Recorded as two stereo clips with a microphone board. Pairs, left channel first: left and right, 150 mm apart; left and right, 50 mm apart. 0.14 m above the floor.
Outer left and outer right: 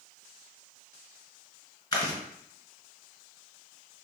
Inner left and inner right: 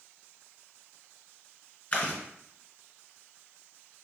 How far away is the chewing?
About 1.6 m.